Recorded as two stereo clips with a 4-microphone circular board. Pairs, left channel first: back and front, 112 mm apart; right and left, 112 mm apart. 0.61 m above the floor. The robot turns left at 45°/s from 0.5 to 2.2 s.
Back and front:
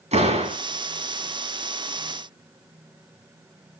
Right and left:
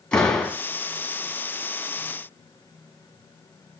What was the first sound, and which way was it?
A door slam, 5° right.